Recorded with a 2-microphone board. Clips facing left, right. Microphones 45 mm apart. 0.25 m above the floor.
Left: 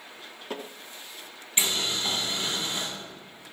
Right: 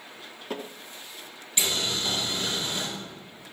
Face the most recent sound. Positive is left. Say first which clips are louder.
# even
turn(degrees=30)  # may be behind; listen again after turning